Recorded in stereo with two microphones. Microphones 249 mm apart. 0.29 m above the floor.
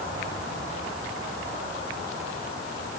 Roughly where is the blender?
I don't hear a blender.